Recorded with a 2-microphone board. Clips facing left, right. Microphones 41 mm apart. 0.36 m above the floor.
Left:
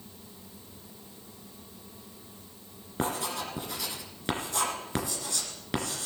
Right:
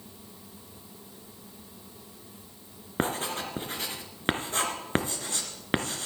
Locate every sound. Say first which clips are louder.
3.0 s writing: right 2 dB; 40° right (ahead or behind), 2.5 m